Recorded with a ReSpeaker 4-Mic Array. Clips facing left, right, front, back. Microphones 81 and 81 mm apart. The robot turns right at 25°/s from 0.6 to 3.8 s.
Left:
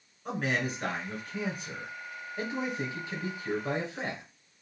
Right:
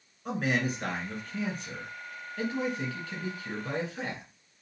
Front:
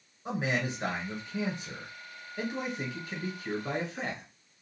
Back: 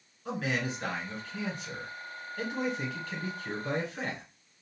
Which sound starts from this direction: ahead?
A man speaking, at 0.2 s.